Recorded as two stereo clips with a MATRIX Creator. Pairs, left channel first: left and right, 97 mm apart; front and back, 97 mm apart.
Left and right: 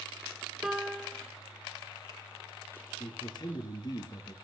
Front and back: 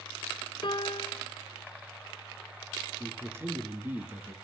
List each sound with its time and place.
0.6 s a piano: 5° right, 1.1 m
3.0 s a man speaking: 120° left, 2.5 m